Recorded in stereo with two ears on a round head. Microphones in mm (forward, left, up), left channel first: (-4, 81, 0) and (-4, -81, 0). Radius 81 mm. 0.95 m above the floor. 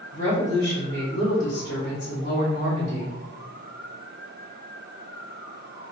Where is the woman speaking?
60° left (ahead or behind), 1.4 m.